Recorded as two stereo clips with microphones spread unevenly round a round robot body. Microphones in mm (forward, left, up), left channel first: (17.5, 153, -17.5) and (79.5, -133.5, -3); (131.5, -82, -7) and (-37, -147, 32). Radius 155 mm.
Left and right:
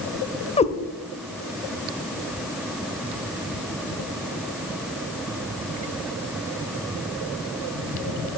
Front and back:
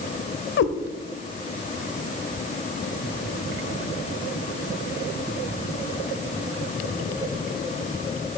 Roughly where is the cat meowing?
Ahead left.